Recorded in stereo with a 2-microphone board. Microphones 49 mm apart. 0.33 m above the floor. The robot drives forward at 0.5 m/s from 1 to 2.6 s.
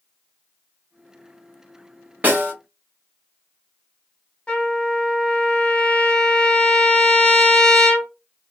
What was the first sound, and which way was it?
A snare drum, 35° right (ahead or behind).